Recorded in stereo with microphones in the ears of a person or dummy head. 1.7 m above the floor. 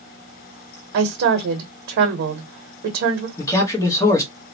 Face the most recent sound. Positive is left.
turn(degrees=15)  # may be behind; listen again after turning